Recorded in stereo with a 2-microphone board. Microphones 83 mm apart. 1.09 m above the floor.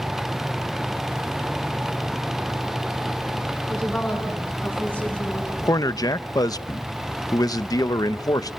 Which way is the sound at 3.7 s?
10° left (ahead or behind).